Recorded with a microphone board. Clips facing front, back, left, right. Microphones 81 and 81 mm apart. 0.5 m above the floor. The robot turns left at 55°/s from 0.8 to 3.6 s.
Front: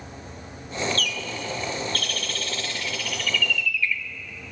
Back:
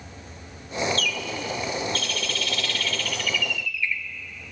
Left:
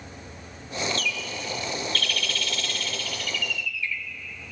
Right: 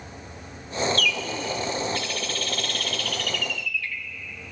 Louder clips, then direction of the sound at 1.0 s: Back 1 dB, right 5 dB; 30° left.